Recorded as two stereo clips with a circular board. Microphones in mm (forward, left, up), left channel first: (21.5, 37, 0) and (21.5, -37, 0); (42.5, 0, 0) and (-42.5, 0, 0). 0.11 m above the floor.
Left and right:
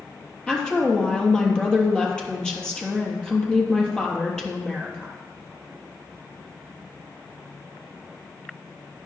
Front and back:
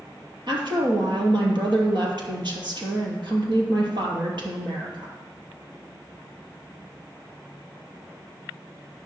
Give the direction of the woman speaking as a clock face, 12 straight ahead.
6 o'clock.